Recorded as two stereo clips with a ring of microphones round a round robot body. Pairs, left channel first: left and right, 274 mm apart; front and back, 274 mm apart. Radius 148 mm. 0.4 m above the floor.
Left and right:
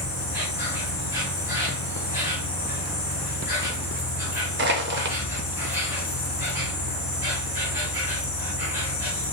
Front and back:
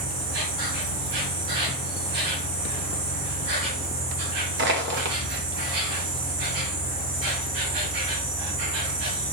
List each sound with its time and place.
0.0 s an insect: 170° right, 1.3 m
4.6 s crushing: 135° right, 0.5 m